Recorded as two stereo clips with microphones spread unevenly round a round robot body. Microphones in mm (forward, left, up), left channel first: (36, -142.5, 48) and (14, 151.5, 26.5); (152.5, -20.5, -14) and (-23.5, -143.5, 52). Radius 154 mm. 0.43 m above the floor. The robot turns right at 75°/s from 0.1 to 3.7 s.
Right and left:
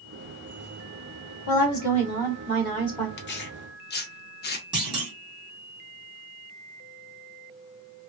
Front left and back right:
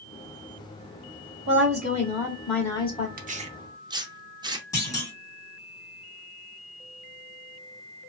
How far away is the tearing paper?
About 0.6 m.